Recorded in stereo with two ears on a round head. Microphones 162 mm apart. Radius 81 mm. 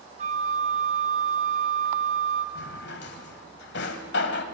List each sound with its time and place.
0.2 s a flute: 40° right (ahead or behind), 1.1 m
2.5 s a drawer: 70° left (ahead or behind), 1.5 m